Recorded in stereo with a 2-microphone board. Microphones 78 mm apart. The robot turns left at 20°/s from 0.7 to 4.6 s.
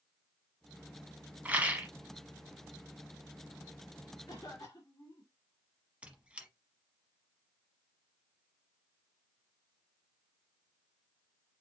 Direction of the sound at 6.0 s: 15° right (ahead or behind).